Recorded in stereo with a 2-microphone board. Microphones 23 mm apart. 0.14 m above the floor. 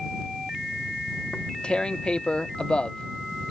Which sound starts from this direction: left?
Tearing paper, at 1.3 s.